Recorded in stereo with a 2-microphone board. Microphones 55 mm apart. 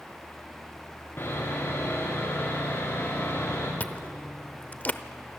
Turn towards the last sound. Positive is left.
turn(degrees=30)  # may be behind; listen again after turning